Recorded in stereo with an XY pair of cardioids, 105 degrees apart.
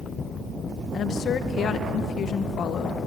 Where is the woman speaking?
60° left, 1.7 m.